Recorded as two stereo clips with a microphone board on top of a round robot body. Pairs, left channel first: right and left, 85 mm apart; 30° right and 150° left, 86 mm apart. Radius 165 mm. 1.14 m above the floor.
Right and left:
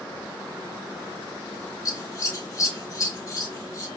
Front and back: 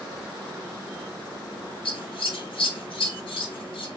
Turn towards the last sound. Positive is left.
turn(degrees=-40)